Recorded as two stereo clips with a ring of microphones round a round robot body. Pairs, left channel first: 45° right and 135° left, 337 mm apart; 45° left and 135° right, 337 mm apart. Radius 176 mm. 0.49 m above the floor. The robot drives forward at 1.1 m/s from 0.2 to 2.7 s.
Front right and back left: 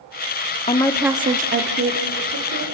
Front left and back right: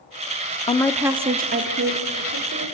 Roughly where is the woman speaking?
Ahead.